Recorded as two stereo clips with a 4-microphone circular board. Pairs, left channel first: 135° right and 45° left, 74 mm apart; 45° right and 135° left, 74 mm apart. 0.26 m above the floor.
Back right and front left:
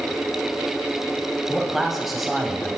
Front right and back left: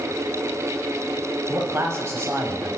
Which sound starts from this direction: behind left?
A man speaking, at 1.5 s.